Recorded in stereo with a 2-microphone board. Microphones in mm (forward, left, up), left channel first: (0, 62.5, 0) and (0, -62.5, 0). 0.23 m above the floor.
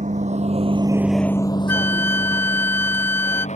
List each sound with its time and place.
0.0 s a vehicle: 75° right (ahead or behind); by 3.6 s 65° left (ahead or behind)
1.7 s a flute: 15° left (ahead or behind)